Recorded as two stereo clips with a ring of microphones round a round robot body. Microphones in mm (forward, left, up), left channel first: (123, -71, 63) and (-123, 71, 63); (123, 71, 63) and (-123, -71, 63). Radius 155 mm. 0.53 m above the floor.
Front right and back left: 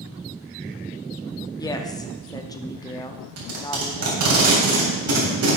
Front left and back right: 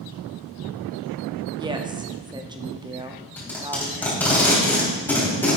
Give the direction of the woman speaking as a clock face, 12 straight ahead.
3 o'clock.